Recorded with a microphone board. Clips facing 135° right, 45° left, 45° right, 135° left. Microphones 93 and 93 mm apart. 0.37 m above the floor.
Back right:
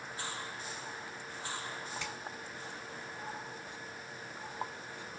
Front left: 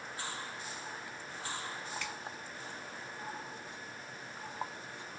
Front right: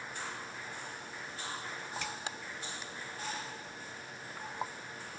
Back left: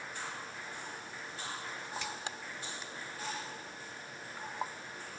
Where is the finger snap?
75° right, 1.7 m.